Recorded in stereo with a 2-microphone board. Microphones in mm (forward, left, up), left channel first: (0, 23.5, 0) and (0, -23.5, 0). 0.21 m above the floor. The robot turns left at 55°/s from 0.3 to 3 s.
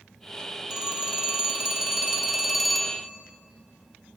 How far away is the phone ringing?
About 0.6 m.